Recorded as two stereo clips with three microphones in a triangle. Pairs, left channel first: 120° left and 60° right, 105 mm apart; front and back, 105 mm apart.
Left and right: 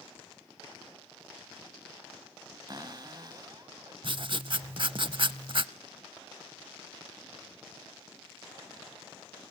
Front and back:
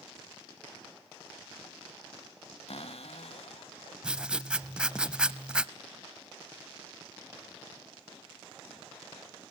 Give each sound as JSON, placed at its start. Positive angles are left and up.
{"t": 2.7, "sound": "a cupboard door", "azimuth_deg": -10, "distance_m": 0.8}
{"t": 4.0, "sound": "writing", "azimuth_deg": -100, "distance_m": 0.6}